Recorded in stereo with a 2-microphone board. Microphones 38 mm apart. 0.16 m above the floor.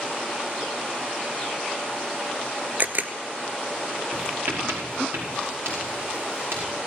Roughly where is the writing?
Right.